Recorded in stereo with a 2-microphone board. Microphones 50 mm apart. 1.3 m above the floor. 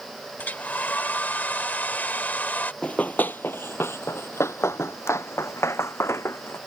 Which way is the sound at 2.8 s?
25° left (ahead or behind).